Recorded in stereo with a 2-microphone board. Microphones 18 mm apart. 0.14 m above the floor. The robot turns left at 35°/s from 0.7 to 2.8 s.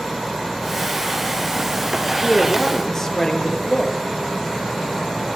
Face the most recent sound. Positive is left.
turn(degrees=20)  # may be behind; listen again after turning